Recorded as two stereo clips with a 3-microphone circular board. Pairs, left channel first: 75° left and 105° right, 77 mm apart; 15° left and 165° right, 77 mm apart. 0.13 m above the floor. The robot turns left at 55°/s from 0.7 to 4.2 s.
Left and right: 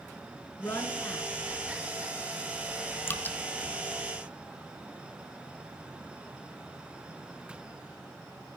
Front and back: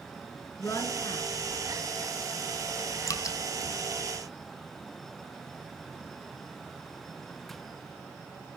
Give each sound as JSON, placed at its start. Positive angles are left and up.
{"t": 0.6, "sound": "a woman speaking", "azimuth_deg": 40, "distance_m": 1.8}
{"t": 3.1, "sound": "dripping", "azimuth_deg": 30, "distance_m": 0.7}